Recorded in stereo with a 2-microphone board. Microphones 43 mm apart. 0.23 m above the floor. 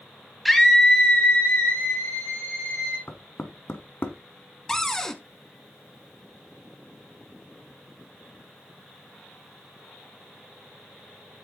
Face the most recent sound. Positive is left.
turn(degrees=15)  # may be behind; listen again after turning